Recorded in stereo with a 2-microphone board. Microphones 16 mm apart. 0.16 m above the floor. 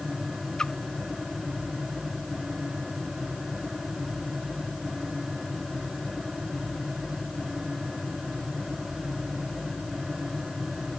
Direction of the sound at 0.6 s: 45° left (ahead or behind).